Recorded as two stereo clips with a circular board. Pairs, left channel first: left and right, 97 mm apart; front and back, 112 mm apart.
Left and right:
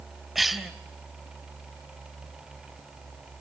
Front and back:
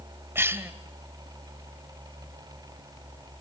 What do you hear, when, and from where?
0.3 s a cough: 175° right, 0.9 m